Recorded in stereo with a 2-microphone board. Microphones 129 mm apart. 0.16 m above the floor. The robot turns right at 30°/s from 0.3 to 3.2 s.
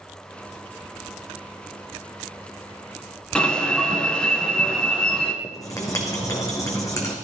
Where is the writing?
25° left (ahead or behind), 2.5 m.